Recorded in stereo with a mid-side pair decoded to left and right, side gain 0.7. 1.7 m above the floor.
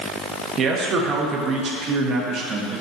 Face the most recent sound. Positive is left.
turn(degrees=-45)